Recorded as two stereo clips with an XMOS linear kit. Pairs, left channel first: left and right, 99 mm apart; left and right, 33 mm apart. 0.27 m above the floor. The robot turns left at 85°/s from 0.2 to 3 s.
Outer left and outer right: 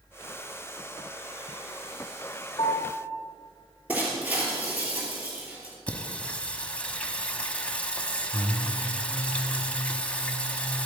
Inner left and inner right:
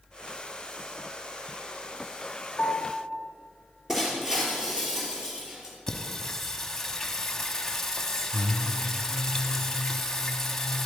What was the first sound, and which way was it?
A piano, 55° left.